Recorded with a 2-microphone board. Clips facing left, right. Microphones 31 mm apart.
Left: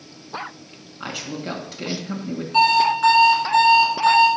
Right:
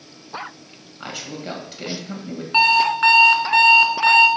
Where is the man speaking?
5° right (ahead or behind), 1.6 m.